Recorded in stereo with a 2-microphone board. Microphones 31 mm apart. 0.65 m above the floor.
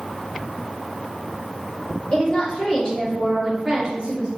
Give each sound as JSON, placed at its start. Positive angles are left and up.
{"t": 2.1, "sound": "a woman speaking", "side_deg": 40, "distance_m": 1.7}